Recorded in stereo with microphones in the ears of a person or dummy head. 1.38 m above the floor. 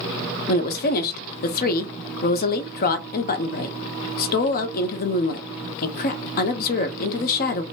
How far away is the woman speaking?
About 0.6 m.